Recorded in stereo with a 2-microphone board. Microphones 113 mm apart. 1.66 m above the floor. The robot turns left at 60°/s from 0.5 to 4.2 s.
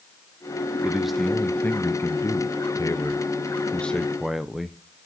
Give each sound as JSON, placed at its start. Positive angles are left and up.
{"t": 0.8, "sound": "a man speaking", "azimuth_deg": -160, "distance_m": 0.6}